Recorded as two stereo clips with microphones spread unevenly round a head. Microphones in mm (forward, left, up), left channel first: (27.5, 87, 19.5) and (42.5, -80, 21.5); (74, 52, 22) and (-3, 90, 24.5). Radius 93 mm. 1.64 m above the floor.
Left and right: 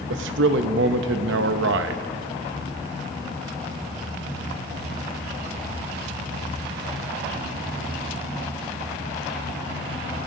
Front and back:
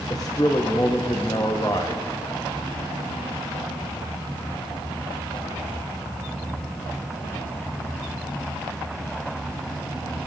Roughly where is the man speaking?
Right.